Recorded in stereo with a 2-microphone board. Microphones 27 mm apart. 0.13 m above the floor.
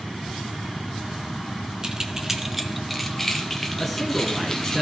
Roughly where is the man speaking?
Centre.